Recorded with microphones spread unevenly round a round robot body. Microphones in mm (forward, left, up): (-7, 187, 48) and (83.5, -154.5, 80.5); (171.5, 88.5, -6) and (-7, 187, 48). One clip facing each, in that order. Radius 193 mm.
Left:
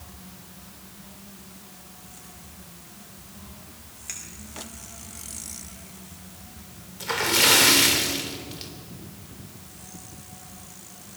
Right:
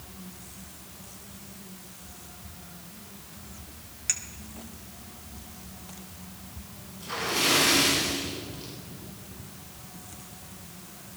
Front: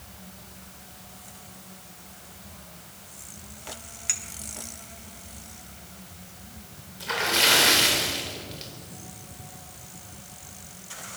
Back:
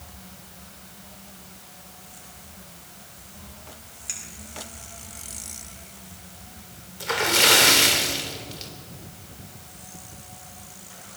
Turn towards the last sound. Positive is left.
turn(degrees=120)